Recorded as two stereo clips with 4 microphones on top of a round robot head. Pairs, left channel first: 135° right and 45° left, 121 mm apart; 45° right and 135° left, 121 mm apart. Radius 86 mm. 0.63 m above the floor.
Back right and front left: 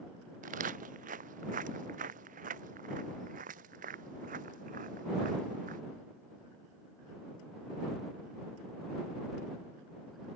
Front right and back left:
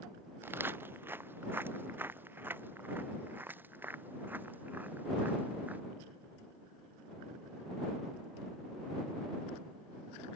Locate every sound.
0.4 s footsteps: 60° left; by 5.8 s 55° left